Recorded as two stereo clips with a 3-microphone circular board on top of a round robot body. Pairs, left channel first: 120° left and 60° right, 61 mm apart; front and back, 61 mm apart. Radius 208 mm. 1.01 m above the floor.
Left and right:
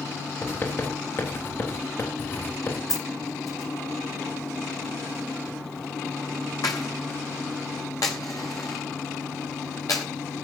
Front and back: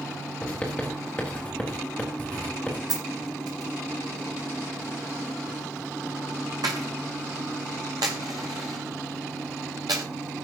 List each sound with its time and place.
0.4 s writing: 70° left, 3.5 m
2.9 s a dropped coin: 155° left, 0.5 m